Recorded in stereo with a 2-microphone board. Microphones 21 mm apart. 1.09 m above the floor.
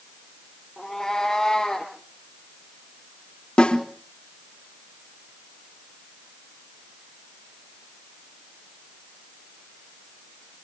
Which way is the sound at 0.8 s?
15° left (ahead or behind).